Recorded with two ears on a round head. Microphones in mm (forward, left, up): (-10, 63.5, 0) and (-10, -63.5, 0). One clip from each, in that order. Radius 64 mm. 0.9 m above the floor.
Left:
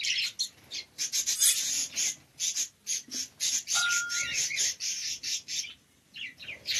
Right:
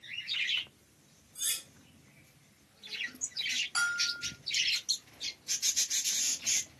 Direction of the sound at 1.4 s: 80° left.